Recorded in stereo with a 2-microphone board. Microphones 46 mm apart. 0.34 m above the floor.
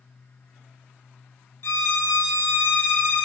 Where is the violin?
75° left (ahead or behind), 0.7 m.